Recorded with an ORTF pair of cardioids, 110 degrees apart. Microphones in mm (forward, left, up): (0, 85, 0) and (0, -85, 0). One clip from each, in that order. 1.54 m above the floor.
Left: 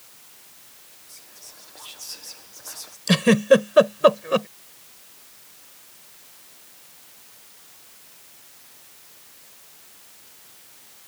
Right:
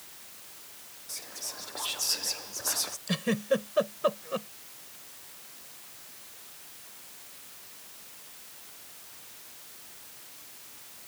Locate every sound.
1.1 s whispering: 40° right
3.1 s a giggle: 70° left